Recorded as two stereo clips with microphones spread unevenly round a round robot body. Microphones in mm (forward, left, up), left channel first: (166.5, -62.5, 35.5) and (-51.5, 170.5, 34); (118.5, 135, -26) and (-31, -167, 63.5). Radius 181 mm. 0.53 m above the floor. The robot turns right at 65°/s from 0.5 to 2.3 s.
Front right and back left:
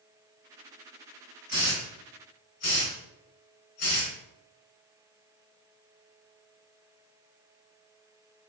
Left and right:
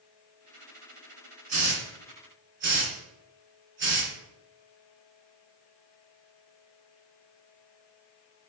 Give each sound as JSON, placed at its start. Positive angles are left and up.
{"t": 1.5, "sound": "a hiss", "azimuth_deg": -110, "distance_m": 2.0}